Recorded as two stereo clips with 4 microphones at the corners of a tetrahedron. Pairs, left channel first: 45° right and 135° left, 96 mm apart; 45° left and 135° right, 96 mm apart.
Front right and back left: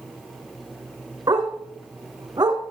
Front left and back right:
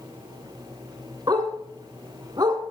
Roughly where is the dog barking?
Behind.